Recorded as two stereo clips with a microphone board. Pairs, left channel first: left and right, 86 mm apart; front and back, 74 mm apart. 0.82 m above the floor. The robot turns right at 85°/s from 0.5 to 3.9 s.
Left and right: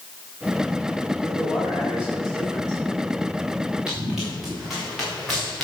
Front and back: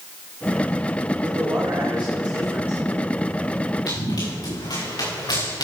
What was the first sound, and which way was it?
A man speaking, 125° left.